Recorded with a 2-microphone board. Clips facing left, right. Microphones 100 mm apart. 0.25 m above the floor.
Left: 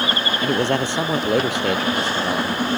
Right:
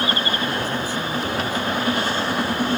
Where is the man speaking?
75° left (ahead or behind).